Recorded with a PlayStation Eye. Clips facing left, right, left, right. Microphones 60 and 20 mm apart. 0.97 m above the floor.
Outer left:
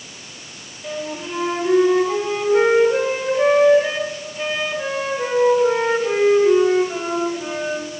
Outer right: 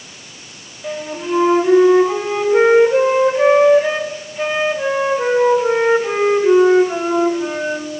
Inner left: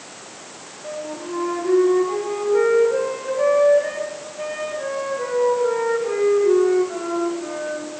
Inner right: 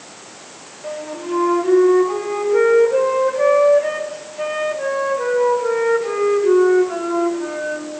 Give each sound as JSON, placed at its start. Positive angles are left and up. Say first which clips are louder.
{"t": 0.8, "sound": "a flute", "louder": "outer right 4 dB, inner right 3 dB", "side_deg": -25, "distance_m": 2.0}